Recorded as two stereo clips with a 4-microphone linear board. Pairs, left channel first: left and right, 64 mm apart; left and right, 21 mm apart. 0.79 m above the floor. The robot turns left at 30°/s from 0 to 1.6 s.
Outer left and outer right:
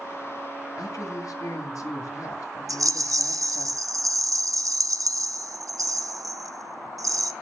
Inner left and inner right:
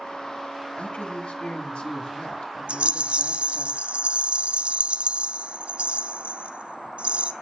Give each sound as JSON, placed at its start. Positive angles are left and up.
{"t": 0.8, "sound": "a man speaking", "side_deg": 65, "distance_m": 1.9}
{"t": 2.7, "sound": "a rattle", "side_deg": -65, "distance_m": 0.9}